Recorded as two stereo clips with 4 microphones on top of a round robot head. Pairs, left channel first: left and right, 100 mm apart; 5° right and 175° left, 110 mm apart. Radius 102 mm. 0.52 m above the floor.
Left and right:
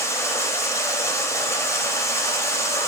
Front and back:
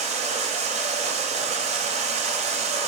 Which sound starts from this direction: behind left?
Running water, at 0.0 s.